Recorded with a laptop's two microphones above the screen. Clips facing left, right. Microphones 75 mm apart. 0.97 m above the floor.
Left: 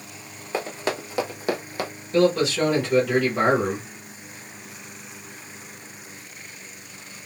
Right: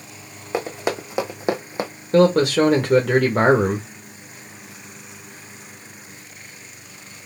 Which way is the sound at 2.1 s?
50° right (ahead or behind).